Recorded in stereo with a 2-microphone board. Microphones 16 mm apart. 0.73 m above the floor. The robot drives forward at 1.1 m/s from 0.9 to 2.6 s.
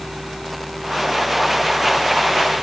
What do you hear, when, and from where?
Only background noise.